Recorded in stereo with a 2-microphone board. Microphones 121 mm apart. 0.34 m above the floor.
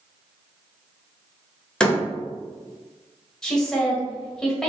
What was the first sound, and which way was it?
A door slam, 5° left (ahead or behind).